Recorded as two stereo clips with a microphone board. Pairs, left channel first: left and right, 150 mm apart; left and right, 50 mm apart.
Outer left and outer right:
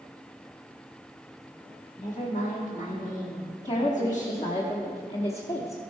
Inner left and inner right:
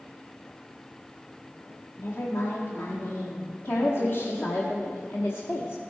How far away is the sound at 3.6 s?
About 0.9 m.